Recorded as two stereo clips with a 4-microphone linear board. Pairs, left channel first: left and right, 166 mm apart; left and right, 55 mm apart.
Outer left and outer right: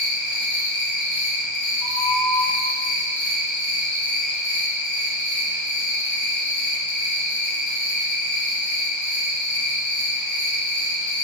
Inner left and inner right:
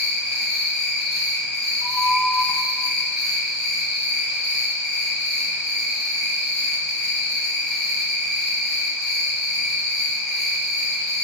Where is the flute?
10° left (ahead or behind), 0.6 m.